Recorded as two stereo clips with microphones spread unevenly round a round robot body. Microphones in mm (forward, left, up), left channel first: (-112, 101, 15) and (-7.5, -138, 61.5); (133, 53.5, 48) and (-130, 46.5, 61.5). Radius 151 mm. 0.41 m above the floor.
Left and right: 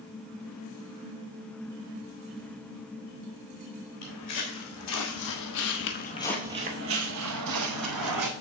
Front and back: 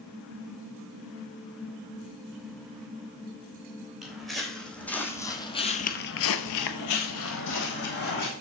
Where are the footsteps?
95° left, 2 m; by 8.3 s 60° right, 1.8 m.